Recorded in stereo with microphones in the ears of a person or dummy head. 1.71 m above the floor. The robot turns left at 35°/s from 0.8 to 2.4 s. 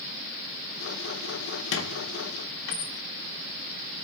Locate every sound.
1.7 s a squeak: 65° left (ahead or behind), 2.0 m